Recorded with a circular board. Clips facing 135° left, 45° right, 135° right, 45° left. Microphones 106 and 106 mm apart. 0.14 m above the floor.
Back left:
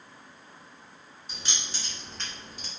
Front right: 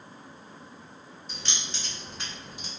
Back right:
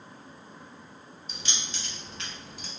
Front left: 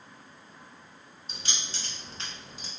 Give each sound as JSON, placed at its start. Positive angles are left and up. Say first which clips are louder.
{"t": 1.3, "sound": "keys jangling", "louder": "even, back right 1 dB", "azimuth_deg": 65, "distance_m": 1.2}